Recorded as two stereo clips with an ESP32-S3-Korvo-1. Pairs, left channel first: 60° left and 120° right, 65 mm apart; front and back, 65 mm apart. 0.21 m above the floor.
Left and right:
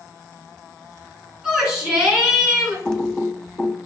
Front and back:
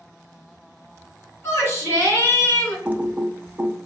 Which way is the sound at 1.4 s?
40° right.